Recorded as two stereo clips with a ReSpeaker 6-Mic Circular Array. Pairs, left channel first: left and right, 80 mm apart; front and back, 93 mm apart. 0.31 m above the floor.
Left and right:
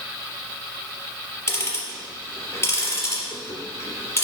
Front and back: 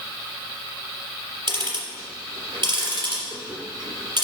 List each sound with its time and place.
1.5 s ticking: 150° left, 3.5 m